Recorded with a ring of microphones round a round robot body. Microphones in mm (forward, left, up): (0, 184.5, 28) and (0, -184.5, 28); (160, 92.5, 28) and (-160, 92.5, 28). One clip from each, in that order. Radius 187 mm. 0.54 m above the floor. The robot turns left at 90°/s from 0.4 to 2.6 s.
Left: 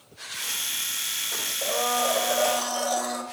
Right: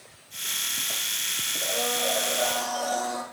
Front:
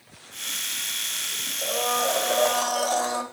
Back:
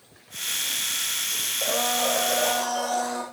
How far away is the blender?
About 2.5 m.